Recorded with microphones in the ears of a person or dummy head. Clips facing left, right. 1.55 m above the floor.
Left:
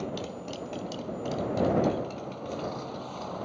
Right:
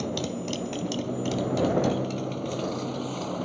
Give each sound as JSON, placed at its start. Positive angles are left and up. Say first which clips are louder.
{"t": 0.0, "sound": "a motorcycle", "louder": "right 5 dB", "side_deg": -50}